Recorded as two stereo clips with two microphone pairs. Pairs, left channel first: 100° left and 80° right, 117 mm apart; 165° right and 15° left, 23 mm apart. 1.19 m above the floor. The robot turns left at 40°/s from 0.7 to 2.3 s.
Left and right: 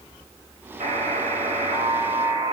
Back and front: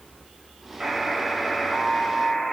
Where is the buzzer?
65° right, 7 m; by 2.5 s 125° right, 7 m.